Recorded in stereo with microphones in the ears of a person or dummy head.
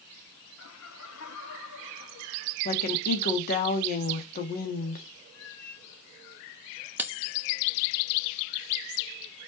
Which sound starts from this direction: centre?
Cutlery clinking, at 7.0 s.